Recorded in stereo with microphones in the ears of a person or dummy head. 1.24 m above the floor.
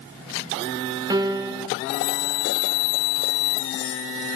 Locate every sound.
1.1 s a piano: 20° right (ahead or behind), 0.6 m